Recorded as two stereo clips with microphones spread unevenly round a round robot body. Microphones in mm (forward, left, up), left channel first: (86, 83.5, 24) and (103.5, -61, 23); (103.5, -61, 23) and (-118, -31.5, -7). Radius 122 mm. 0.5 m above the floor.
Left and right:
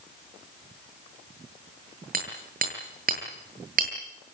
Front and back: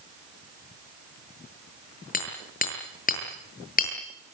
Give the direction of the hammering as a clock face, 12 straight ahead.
2 o'clock.